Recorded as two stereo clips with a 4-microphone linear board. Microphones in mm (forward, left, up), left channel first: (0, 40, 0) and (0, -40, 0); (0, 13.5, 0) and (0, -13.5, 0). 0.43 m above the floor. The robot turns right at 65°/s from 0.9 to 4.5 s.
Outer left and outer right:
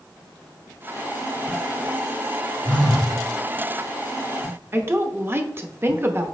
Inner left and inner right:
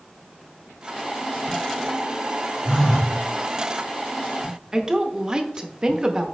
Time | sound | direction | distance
2.6 | a phone buzzing | 170° left | 2.5 m
4.7 | a woman speaking | 30° right (ahead or behind) | 0.8 m